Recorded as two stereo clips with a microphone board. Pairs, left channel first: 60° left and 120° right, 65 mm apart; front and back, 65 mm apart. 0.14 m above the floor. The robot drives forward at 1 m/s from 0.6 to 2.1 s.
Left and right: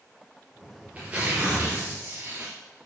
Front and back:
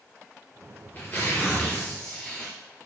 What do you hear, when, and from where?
0.6 s tearing paper: 50° right, 4 m; by 2.5 s 70° right, 3.5 m